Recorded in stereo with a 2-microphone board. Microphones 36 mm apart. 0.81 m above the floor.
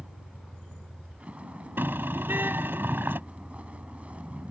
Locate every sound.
0.0 s a vehicle: 40° right (ahead or behind)
1.8 s a car horn: 85° right